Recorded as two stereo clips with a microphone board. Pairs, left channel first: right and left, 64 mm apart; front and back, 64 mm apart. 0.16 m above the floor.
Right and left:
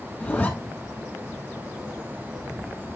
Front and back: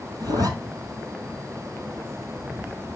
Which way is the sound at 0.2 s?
165° right.